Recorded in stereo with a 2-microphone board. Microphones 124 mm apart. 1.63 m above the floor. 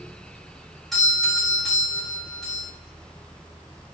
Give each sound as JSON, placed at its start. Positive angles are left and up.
{"t": 0.9, "sound": "a doorbell", "side_deg": 0, "distance_m": 3.5}